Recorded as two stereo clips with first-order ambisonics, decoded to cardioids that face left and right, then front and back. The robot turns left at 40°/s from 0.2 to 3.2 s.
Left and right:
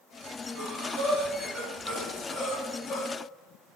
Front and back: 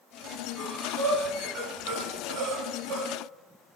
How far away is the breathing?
About 2.5 m.